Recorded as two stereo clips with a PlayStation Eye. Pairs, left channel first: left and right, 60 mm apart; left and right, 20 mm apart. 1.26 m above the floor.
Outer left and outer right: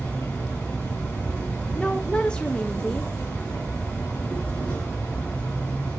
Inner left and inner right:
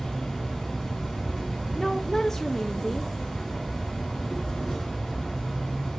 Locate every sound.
0.0 s an insect: 25° left (ahead or behind), 3 m
1.8 s a woman speaking: 15° left (ahead or behind), 0.6 m